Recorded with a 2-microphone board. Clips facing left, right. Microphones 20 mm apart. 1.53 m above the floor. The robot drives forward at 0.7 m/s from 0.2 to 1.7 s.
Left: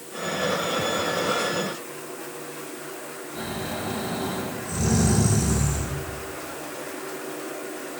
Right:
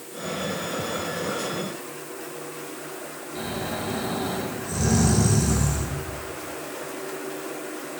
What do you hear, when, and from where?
3.4 s snoring: 15° right (ahead or behind), 2.5 m